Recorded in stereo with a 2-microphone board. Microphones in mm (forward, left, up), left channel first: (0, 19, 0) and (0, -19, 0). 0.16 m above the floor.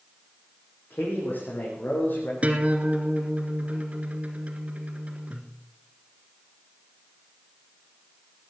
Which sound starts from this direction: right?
A guitar, at 2.4 s.